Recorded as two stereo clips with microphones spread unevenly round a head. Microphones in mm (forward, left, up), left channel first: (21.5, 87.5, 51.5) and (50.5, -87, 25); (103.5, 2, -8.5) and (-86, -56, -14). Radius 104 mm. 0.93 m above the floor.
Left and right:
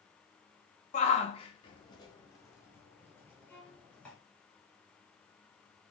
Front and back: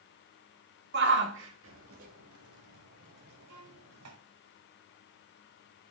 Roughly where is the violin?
Behind.